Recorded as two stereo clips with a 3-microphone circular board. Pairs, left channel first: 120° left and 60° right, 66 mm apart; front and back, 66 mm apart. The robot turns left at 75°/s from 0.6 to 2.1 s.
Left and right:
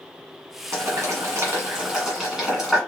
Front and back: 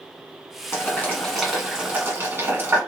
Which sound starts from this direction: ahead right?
Boiling, at 0.7 s.